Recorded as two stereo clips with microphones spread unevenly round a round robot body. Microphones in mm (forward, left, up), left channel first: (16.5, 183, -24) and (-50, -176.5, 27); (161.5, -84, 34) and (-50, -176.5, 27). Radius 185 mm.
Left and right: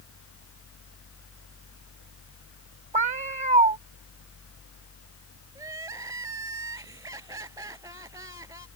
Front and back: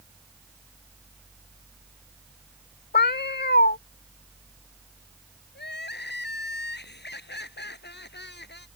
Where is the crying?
20° right.